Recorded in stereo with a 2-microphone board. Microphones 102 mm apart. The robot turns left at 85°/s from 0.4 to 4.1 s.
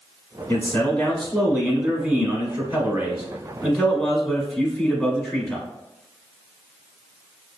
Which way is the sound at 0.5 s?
20° left (ahead or behind).